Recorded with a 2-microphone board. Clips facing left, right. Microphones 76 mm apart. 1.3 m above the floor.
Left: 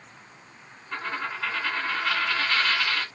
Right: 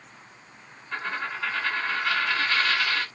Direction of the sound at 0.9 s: 5° left (ahead or behind).